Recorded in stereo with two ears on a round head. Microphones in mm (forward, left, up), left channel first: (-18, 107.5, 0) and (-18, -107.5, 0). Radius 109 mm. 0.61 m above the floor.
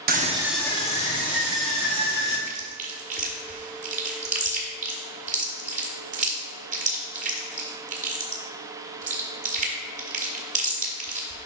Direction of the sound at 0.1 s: 40° right (ahead or behind).